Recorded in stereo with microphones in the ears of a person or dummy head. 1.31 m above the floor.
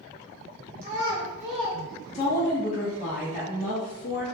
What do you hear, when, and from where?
0.8 s a child speaking: 40° right (ahead or behind), 1.1 m; by 2.5 s 55° left (ahead or behind), 1.2 m
2.1 s a woman speaking: 35° left (ahead or behind), 0.6 m